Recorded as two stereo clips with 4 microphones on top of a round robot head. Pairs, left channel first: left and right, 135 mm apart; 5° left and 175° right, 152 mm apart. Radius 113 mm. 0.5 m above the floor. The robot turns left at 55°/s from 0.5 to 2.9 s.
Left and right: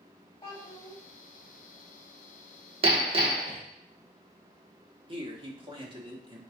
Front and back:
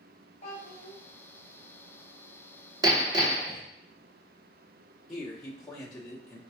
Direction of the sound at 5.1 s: 80° right.